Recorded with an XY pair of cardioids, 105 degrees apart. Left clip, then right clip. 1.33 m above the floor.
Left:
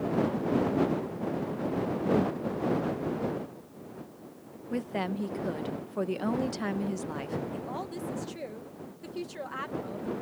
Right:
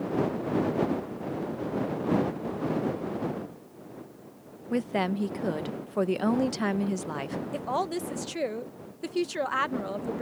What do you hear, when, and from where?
4.7 s a woman speaking: 35° right
7.5 s a woman speaking: 60° right